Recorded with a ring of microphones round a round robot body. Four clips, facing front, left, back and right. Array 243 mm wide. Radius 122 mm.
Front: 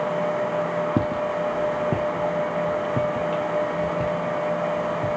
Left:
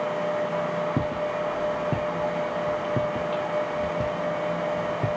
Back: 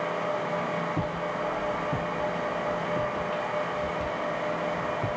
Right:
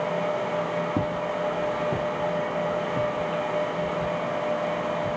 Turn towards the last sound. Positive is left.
turn(degrees=85)